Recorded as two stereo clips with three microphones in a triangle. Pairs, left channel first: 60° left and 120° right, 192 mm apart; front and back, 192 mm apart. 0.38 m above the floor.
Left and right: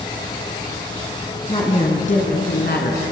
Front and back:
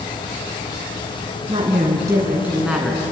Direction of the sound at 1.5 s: 120° left.